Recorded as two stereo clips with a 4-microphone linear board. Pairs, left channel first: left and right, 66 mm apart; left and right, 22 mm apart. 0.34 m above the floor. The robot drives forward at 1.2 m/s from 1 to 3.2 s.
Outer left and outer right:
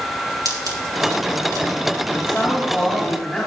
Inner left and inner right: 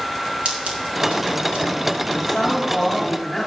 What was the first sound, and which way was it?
Scissors, 70° right (ahead or behind).